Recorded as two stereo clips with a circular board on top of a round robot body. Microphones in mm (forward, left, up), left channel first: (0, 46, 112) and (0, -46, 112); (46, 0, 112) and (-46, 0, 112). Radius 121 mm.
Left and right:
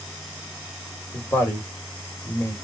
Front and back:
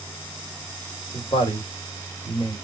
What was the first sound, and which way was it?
A woman speaking, 30° left.